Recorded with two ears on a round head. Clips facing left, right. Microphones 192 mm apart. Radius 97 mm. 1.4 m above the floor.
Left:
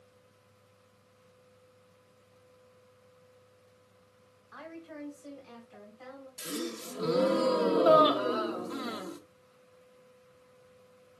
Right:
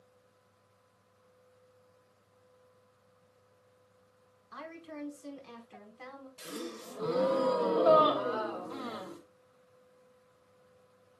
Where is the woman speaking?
45° right (ahead or behind), 4.5 m; by 6.3 s 60° right (ahead or behind), 5 m.